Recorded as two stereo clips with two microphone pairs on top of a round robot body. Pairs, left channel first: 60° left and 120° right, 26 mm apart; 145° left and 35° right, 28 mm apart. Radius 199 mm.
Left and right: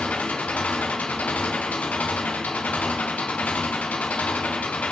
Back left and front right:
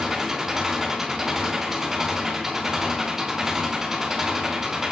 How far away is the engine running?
About 2.5 m.